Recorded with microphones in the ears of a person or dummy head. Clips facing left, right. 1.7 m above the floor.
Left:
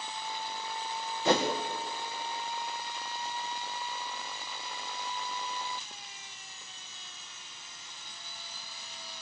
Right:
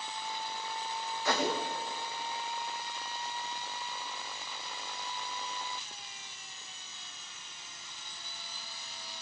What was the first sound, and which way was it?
A whoosh, 30° left (ahead or behind).